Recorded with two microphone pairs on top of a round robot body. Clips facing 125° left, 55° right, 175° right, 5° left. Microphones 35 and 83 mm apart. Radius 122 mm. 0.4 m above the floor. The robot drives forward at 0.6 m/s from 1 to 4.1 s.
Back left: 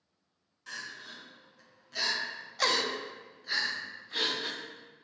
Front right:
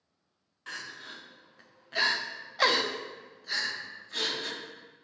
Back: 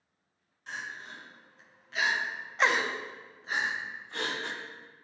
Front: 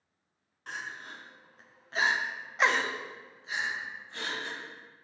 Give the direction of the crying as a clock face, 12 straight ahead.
12 o'clock.